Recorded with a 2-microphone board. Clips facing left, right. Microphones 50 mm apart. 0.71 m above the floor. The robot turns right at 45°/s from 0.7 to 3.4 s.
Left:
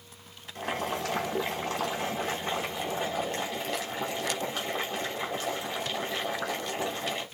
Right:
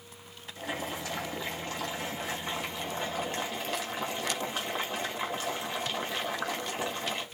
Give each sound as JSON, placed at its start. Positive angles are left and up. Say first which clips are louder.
{"t": 0.6, "sound": "boiling", "louder": "left 4 dB", "azimuth_deg": 65, "distance_m": 4.0}